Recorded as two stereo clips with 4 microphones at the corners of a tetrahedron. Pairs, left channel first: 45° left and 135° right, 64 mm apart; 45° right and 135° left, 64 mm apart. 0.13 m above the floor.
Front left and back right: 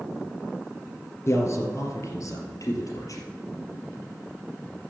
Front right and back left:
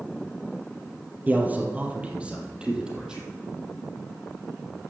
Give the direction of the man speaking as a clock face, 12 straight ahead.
9 o'clock.